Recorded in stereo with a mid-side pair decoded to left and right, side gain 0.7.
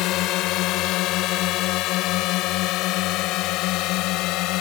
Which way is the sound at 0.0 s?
60° left.